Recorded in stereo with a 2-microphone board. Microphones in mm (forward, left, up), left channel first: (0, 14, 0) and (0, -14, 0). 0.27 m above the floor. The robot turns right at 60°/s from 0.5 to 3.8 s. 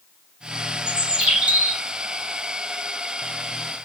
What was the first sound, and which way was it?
A bird, 145° right.